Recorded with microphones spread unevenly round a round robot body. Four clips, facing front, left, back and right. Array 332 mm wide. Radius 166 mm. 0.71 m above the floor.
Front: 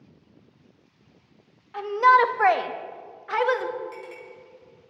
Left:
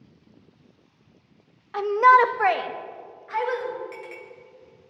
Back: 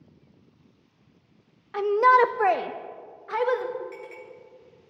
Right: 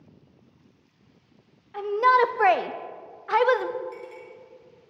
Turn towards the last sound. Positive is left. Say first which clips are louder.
# even, front 1 dB
turn(degrees=55)